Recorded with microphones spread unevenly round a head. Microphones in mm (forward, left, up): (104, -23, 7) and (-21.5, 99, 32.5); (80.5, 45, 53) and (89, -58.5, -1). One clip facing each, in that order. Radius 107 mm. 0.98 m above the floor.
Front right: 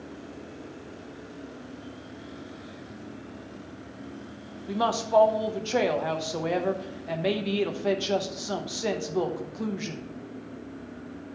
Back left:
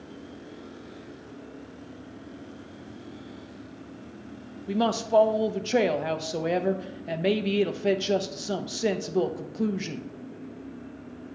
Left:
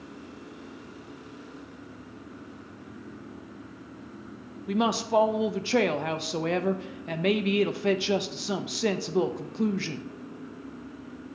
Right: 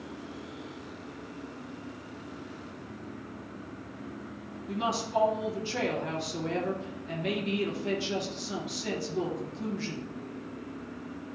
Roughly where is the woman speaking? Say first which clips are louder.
Back left 2 dB, left 5 dB; ahead left.